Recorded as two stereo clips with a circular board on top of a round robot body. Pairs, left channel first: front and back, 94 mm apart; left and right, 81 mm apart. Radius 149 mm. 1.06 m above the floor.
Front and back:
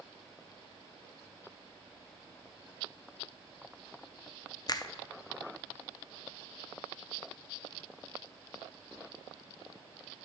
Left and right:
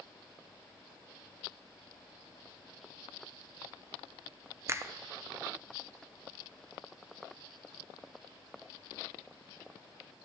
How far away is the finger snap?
About 0.6 m.